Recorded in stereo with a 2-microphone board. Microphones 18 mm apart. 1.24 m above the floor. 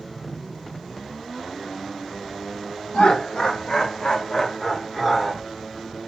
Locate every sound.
2.9 s laughter: 70° left (ahead or behind), 1.7 m; by 5.4 s centre (ahead or behind), 1.7 m